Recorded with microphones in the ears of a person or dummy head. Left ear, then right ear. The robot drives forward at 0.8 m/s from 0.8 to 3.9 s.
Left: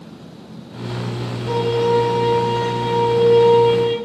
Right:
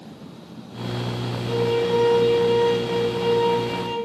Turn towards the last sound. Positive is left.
turn(degrees=65)  # may be behind; listen again after turning